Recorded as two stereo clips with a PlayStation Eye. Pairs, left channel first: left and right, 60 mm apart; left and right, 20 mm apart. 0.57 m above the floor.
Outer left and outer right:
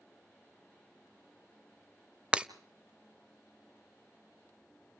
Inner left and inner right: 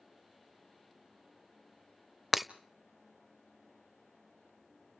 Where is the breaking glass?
20° right (ahead or behind), 0.6 m.